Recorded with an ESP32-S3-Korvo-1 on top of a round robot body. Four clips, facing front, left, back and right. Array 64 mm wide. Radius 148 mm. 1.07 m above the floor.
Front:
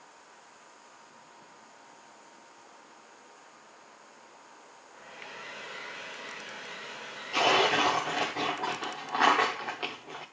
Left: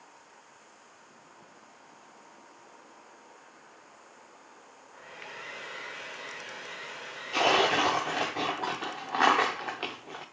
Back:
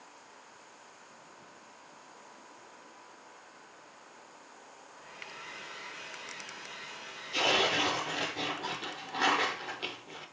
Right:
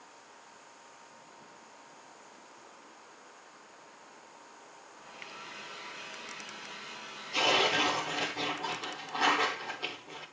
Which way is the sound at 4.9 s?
60° left.